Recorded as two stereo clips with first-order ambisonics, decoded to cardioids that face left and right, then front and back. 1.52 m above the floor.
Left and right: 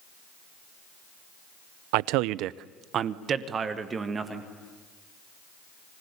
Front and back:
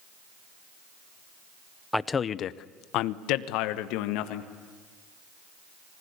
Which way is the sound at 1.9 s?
85° right.